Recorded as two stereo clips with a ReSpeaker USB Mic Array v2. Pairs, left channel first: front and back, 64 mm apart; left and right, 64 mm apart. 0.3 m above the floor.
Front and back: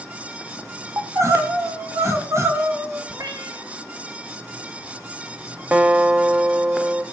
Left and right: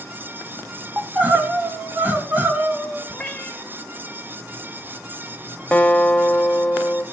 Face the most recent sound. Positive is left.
turn(degrees=140)